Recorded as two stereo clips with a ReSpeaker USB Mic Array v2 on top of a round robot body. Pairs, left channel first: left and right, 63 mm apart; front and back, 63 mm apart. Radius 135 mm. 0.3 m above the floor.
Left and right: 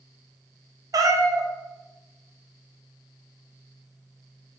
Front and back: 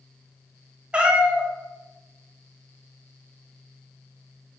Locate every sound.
0.9 s a cat meowing: 105° right, 0.5 m